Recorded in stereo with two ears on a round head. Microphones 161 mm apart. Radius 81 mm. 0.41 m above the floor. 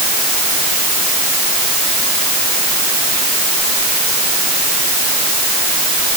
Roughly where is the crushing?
No crushing in this recording.